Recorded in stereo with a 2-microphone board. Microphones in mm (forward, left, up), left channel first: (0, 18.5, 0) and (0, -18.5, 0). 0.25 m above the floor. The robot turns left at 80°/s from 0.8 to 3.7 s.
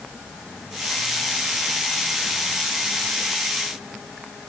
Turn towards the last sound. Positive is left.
No sound to turn to.